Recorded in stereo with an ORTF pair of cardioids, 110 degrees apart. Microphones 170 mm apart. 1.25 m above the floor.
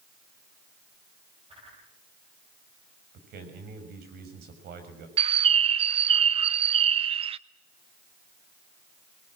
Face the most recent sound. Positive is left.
turn(degrees=-35)